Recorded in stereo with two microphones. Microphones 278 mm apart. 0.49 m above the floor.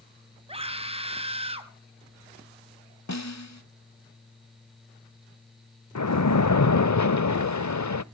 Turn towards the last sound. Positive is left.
turn(degrees=85)